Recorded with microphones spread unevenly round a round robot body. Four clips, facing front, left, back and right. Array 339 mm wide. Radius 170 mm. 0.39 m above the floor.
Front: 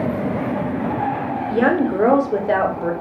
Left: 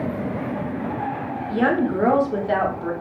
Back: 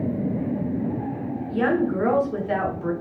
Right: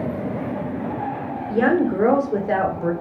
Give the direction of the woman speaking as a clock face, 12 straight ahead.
1 o'clock.